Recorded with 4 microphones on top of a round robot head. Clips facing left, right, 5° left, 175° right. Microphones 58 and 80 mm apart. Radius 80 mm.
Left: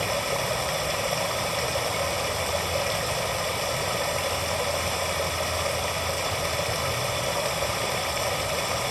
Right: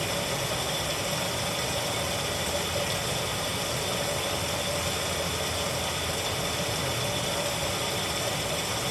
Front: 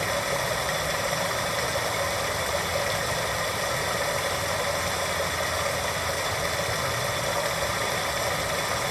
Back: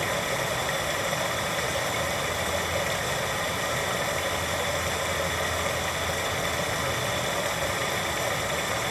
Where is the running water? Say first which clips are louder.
Left 4 dB, front 1 dB; 80° left, 0.9 m.